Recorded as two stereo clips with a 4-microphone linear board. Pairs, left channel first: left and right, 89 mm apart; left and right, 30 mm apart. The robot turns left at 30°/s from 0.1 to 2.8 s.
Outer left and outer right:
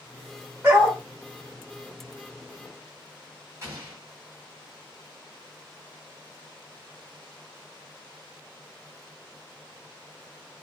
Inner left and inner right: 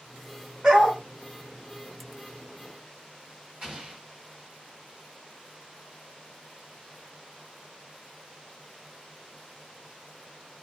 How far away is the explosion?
About 1.6 m.